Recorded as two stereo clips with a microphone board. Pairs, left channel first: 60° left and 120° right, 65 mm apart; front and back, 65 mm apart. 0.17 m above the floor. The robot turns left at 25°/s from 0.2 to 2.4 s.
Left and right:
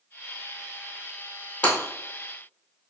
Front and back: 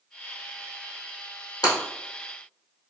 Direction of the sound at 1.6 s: 5° right.